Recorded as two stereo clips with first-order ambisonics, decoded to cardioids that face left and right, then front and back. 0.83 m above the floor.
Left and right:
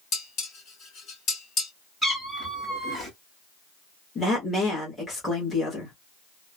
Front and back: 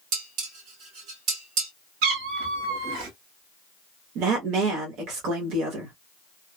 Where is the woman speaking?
175° left, 1.1 m.